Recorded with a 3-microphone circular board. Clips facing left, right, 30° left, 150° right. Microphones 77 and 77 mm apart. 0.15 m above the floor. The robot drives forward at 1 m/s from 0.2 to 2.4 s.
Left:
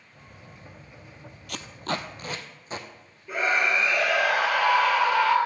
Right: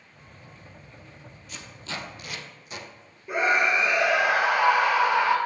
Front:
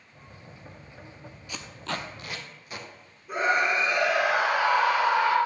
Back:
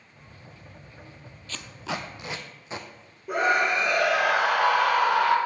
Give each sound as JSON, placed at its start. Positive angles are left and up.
{"t": 1.5, "sound": "tape being pulled", "azimuth_deg": 105, "distance_m": 0.8}
{"t": 3.3, "sound": "a scream", "azimuth_deg": -160, "distance_m": 3.5}